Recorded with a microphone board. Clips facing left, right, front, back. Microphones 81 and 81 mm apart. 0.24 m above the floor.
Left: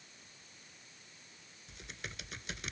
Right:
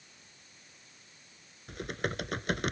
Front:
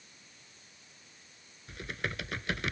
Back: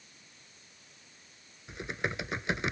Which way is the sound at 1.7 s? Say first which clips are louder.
Right 14 dB, back 3 dB; 115° right.